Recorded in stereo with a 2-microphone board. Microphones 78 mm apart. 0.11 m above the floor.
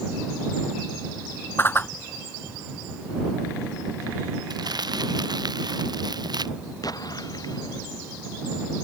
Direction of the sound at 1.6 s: 30° left (ahead or behind).